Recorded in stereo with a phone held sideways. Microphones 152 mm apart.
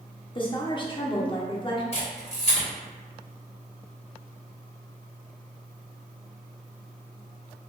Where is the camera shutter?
45° left (ahead or behind), 1.9 m.